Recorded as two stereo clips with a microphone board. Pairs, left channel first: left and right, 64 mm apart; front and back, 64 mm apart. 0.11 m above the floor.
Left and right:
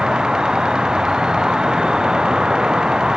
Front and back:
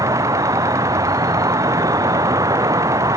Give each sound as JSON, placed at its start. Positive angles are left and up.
{"t": 0.0, "sound": "an insect", "azimuth_deg": -170}